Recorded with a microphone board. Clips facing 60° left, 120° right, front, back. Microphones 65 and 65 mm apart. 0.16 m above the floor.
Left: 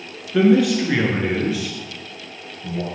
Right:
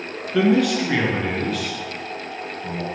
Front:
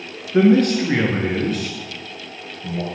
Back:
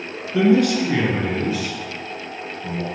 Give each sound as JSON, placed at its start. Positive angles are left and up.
{"t": 0.3, "sound": "a man speaking", "azimuth_deg": -30, "distance_m": 1.6}